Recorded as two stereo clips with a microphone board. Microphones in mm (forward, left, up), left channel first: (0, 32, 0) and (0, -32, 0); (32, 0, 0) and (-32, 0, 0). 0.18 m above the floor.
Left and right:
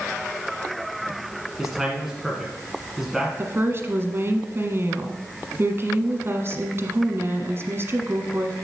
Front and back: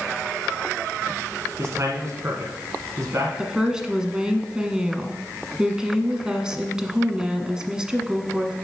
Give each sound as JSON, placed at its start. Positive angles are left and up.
{"t": 1.6, "sound": "a man speaking", "azimuth_deg": -175, "distance_m": 1.5}
{"t": 3.4, "sound": "a woman speaking", "azimuth_deg": -105, "distance_m": 1.3}